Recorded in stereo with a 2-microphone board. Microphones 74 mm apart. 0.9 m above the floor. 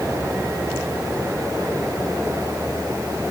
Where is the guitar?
I don't hear a guitar.